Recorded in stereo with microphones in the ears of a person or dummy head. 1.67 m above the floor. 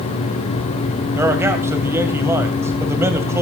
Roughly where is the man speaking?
Centre.